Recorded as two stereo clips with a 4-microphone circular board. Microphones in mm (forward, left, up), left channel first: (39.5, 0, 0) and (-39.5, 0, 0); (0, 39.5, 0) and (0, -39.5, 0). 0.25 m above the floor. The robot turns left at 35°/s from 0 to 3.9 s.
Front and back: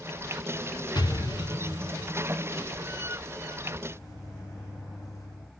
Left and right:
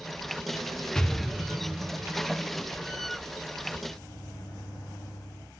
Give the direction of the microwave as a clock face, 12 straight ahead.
10 o'clock.